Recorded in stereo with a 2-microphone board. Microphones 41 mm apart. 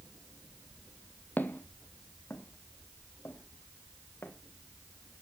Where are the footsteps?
50° left (ahead or behind), 1.0 m; by 4.3 s 75° left (ahead or behind), 2.5 m.